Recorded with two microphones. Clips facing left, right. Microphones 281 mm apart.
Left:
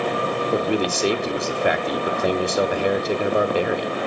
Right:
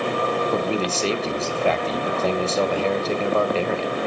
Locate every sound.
0.5 s a man speaking: 15° left (ahead or behind), 0.7 m